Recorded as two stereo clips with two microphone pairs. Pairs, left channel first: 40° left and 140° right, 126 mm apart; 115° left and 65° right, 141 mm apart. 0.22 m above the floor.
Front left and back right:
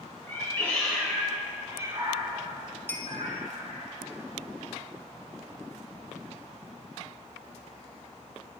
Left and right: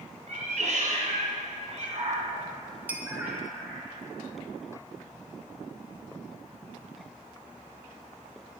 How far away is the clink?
About 0.6 m.